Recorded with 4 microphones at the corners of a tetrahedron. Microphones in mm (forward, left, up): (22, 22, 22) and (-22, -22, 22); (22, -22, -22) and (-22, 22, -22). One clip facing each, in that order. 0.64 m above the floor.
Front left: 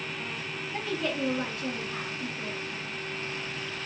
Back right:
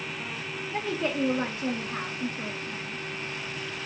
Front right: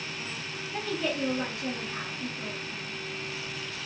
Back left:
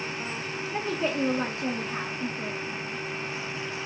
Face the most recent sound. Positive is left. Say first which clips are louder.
# back right 3 dB, back left 2 dB
turn(degrees=175)